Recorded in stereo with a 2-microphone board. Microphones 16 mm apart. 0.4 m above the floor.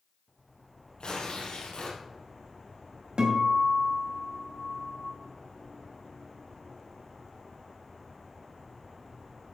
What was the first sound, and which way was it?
Tearing paper, 75° left (ahead or behind).